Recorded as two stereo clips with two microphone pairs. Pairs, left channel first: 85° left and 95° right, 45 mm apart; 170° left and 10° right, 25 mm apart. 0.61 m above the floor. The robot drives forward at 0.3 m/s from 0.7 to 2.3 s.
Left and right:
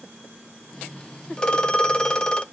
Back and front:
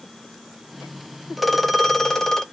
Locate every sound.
1.4 s a phone ringing: 65° left, 0.5 m; by 2.4 s 130° left, 0.5 m